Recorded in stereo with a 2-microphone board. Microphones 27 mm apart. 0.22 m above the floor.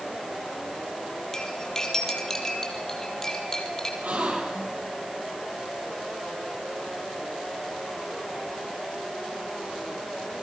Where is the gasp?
75° right (ahead or behind), 6 m.